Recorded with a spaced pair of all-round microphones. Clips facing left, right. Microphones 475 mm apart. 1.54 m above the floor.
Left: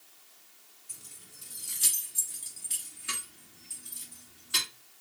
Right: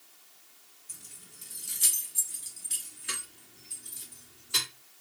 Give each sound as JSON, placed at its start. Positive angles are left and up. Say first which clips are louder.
{"t": 0.9, "sound": "keys jangling", "louder": "right 1 dB", "side_deg": -40, "distance_m": 0.9}